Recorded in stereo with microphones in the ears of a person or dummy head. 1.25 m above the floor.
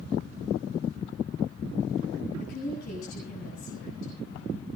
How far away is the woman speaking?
About 9 m.